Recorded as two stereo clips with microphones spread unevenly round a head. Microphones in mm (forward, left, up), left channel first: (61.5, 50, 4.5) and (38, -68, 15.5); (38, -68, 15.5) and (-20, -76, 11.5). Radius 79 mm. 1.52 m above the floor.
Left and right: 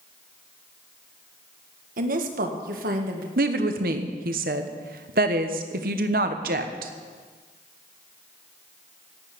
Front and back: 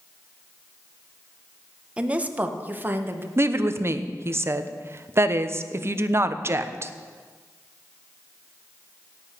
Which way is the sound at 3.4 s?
130° right.